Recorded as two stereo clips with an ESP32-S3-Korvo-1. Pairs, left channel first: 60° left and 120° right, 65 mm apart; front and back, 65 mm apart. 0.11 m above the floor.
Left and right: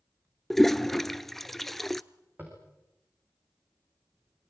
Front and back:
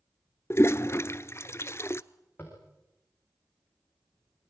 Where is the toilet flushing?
25° right, 0.5 m.